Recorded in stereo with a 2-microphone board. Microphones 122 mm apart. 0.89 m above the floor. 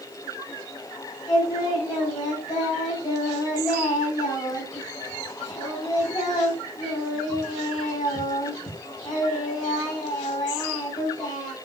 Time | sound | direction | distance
1.3 | singing | 30° left (ahead or behind) | 6 m